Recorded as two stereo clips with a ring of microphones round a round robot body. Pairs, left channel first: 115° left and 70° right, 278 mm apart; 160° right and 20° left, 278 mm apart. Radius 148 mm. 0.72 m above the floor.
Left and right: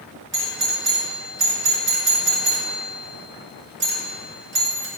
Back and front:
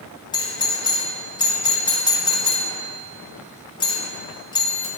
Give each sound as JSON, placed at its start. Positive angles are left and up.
{"t": 0.3, "sound": "a doorbell", "azimuth_deg": -90, "distance_m": 1.8}